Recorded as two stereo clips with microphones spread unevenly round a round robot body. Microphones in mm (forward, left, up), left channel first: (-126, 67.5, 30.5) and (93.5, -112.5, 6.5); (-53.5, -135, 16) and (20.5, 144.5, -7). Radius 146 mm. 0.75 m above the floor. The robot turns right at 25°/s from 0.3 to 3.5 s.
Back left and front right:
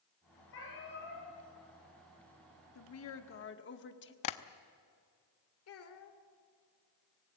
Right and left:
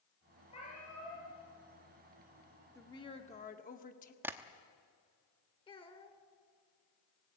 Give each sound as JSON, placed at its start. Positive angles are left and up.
{"t": 0.5, "sound": "a cat meowing", "azimuth_deg": -175, "distance_m": 8.5}
{"t": 2.8, "sound": "a woman speaking", "azimuth_deg": 175, "distance_m": 1.6}
{"t": 4.2, "sound": "tapping", "azimuth_deg": 155, "distance_m": 0.9}
{"t": 5.7, "sound": "a child speaking", "azimuth_deg": 180, "distance_m": 2.0}